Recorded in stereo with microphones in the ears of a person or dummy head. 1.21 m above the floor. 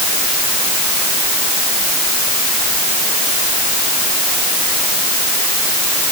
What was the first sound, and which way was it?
Only background noise.